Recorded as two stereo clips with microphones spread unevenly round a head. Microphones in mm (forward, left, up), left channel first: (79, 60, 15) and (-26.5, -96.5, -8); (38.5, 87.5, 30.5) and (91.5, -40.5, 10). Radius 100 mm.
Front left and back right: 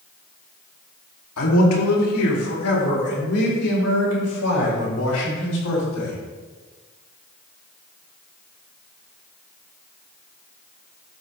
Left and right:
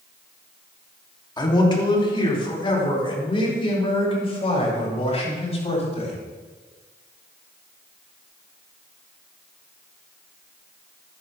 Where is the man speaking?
55° left, 3 m; by 6.2 s 65° left, 9 m.